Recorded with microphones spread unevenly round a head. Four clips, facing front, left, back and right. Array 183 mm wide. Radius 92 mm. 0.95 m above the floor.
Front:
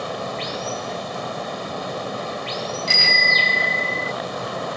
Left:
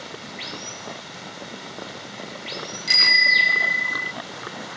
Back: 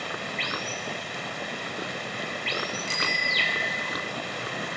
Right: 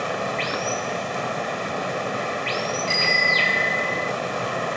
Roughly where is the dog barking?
I don't hear a dog barking.